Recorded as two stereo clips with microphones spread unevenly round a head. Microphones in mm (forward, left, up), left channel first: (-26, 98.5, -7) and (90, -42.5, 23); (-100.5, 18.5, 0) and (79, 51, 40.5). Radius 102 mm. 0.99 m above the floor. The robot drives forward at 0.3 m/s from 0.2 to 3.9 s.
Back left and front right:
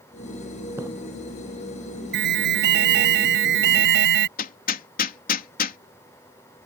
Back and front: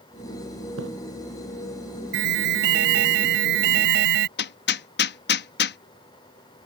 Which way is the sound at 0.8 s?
25° left.